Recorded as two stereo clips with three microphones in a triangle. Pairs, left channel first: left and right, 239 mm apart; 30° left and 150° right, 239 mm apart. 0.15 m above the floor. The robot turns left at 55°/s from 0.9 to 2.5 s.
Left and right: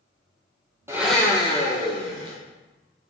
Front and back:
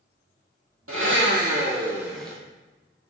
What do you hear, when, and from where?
0.9 s a blender: 170° right, 1.9 m; by 2.4 s 110° left, 1.9 m